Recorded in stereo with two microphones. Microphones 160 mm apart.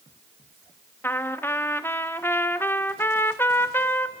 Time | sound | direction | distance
1.0 | a trumpet | 15° left (ahead or behind) | 1.0 m